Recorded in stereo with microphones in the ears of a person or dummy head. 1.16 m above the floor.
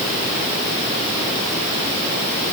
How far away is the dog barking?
No dog barking in this recording.